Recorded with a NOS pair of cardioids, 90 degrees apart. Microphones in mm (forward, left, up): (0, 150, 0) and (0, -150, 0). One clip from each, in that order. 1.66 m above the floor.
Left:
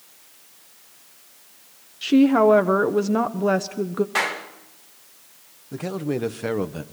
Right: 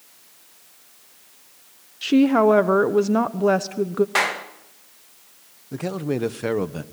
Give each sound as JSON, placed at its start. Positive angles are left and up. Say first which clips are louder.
{"t": 2.0, "sound": "a woman speaking", "louder": "even", "azimuth_deg": -10, "distance_m": 0.9}
{"t": 4.2, "sound": "a clap", "louder": "right 1 dB", "azimuth_deg": -30, "distance_m": 2.0}
{"t": 5.7, "sound": "a man speaking", "louder": "right 1 dB", "azimuth_deg": -10, "distance_m": 1.3}